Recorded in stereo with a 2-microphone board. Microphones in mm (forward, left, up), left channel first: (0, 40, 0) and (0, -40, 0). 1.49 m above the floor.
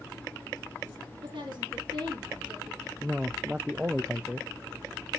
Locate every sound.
1.2 s a woman speaking: 85° right, 3 m
3.0 s a man speaking: 10° right (ahead or behind), 0.5 m